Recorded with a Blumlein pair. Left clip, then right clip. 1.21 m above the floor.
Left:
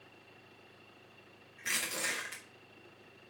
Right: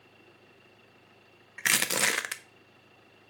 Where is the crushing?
45° right, 0.7 m.